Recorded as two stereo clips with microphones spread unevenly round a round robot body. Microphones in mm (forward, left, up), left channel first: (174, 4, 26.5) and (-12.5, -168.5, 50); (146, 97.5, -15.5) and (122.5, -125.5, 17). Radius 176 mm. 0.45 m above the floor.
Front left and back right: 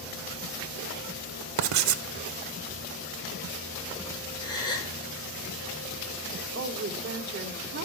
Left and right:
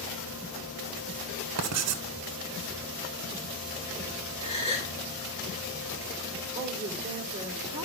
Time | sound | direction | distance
1.6 | writing | 130° right | 0.7 m
4.4 | a gasp | 20° left | 6.5 m
6.5 | a woman speaking | 160° right | 1.0 m